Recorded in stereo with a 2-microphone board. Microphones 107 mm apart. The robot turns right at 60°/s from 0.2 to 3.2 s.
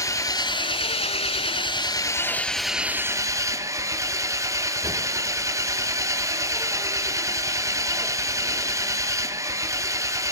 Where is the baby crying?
No baby crying in this recording.